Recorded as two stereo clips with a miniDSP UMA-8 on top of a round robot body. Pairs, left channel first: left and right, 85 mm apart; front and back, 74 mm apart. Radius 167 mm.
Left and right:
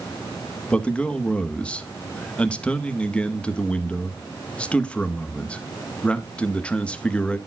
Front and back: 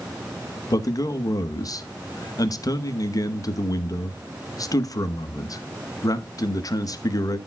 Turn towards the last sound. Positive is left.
turn(degrees=15)